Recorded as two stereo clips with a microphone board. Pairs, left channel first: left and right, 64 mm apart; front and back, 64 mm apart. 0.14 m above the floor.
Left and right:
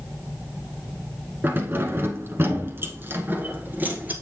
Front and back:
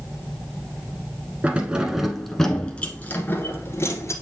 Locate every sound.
1.4 s keys jangling: 125° right, 1.1 m; by 4.1 s 30° right, 1.6 m